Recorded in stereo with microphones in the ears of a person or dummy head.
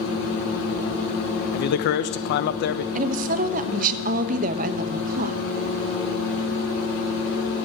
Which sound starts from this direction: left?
A man speaking, at 1.5 s.